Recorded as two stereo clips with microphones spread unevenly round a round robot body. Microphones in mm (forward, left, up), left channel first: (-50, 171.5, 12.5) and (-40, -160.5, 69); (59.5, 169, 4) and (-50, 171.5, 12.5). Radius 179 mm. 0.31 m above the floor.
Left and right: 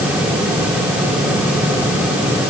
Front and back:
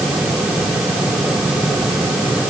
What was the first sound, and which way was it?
Only background noise.